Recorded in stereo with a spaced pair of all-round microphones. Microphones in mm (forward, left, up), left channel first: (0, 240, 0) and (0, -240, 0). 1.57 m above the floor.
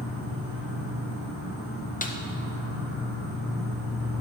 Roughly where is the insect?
Centre.